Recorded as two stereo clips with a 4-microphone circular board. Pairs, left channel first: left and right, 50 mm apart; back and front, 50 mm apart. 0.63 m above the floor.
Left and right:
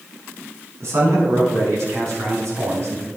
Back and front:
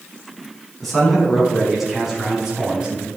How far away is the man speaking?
About 5.5 m.